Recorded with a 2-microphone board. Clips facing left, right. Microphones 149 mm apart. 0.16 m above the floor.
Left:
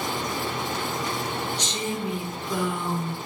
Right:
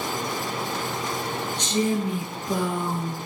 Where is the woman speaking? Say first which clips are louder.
Right 6 dB; 60° right (ahead or behind), 3 m; by 3.2 s 30° right (ahead or behind), 1.6 m.